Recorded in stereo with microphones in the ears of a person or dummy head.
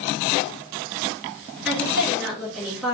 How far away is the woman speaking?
About 2.5 m.